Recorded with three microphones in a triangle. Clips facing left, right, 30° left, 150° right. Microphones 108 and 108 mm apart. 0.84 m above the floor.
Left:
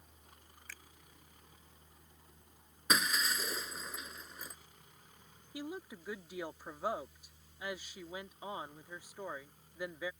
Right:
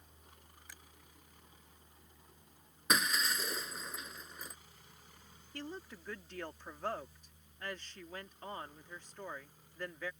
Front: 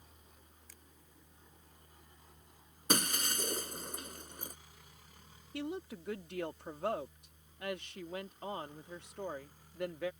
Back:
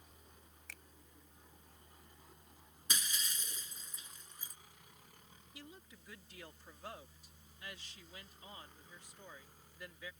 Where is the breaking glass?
Straight ahead.